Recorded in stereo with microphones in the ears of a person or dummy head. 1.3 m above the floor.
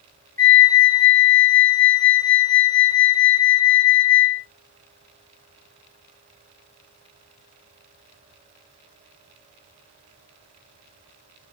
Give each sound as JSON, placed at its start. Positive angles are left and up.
{"t": 0.4, "sound": "a flute", "side_deg": 10, "distance_m": 1.6}